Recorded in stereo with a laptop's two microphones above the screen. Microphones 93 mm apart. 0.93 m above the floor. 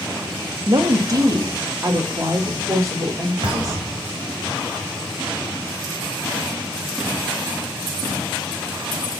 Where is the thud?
65° right (ahead or behind), 2.5 m.